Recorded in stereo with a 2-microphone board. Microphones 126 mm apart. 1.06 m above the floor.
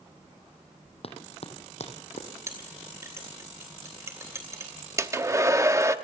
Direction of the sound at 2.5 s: 20° right (ahead or behind).